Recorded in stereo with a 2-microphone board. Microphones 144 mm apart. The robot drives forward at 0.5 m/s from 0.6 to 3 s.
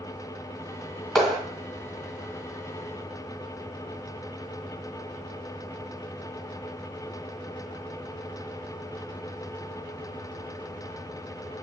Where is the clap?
5° left (ahead or behind), 1.7 m.